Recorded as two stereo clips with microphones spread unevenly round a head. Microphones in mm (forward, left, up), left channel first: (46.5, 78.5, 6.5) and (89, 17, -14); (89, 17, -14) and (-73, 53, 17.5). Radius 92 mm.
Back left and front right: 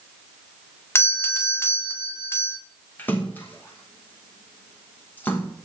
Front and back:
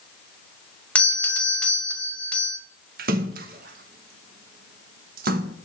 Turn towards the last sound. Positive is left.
turn(degrees=-155)